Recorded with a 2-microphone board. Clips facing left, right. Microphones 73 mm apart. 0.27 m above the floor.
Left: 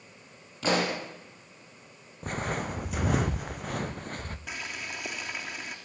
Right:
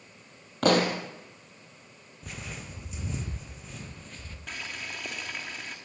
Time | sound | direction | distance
0.6 | a pop | 60° right (ahead or behind) | 4.5 m
2.2 | footsteps | 45° left (ahead or behind) | 0.9 m
4.5 | boiling | 5° left (ahead or behind) | 3.5 m